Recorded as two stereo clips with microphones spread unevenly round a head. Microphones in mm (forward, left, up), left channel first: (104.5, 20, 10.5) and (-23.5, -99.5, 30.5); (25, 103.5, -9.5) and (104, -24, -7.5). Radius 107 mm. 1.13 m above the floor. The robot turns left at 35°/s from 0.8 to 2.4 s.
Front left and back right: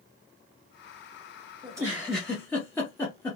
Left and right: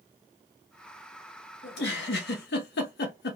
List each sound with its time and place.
1.6 s a giggle: 150° left, 0.9 m; by 3.4 s 125° left, 0.9 m